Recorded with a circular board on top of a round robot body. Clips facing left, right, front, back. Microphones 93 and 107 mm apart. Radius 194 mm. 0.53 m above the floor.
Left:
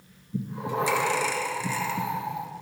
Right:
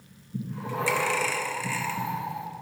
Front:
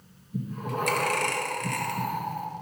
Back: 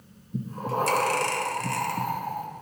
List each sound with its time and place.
0.3 s breathing: 150° left, 1.4 m